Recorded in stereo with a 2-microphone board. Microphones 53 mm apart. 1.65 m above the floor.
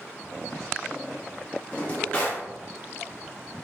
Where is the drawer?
30° left (ahead or behind), 0.8 m.